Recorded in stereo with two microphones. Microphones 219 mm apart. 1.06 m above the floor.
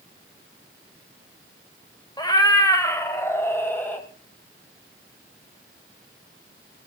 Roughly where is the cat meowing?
Centre.